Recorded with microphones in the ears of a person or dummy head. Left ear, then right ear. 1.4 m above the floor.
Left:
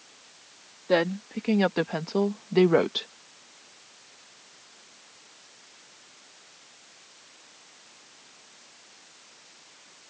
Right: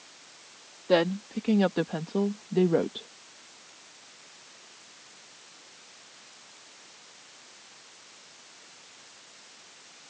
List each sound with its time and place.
0.9 s a woman speaking: 5° left (ahead or behind); by 3.1 s 65° left (ahead or behind)